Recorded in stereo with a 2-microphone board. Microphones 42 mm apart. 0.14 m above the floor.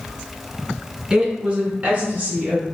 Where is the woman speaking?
20° right (ahead or behind), 1.2 m; by 2.6 s 35° right (ahead or behind), 1.6 m.